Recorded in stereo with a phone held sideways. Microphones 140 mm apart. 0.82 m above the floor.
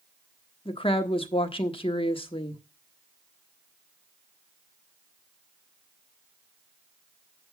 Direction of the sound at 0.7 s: 40° left (ahead or behind).